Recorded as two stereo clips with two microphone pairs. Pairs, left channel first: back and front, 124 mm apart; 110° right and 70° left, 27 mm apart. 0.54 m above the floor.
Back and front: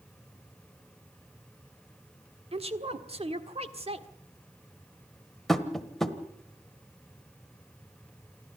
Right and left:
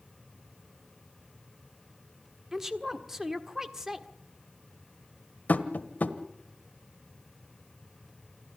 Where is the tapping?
90° right, 1.3 m.